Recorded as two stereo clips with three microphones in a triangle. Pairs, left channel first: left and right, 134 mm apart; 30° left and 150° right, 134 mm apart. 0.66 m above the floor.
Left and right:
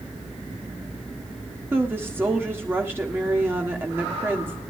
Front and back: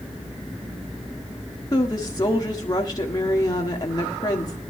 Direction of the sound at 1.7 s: 20° right.